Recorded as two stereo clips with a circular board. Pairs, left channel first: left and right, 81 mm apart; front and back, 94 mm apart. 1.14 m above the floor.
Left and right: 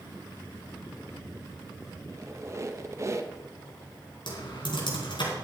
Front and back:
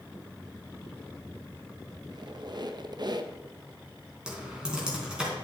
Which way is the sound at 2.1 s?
140° right.